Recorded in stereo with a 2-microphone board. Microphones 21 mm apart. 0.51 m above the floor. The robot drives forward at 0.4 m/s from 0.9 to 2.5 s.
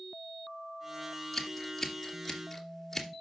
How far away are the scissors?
About 2 m.